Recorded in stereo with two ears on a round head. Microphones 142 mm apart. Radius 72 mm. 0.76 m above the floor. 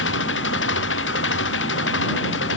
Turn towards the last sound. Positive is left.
turn(degrees=80)